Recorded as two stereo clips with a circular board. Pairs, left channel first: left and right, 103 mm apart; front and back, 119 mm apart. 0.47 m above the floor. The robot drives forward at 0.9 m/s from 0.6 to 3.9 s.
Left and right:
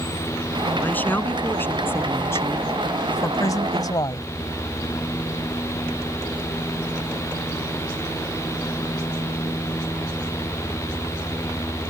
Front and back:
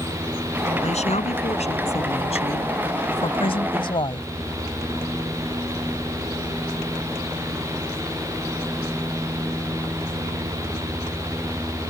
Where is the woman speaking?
15° left; by 4.3 s 40° left.